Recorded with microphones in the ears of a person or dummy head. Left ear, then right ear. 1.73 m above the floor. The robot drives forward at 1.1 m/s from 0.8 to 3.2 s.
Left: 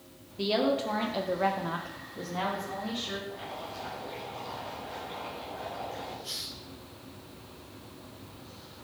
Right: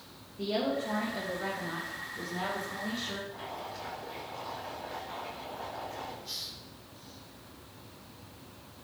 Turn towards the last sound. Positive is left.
turn(degrees=20)  # may be behind; listen again after turning